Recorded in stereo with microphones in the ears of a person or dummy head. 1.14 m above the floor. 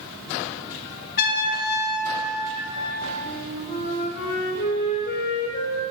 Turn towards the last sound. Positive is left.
turn(degrees=45)  # may be behind; listen again after turning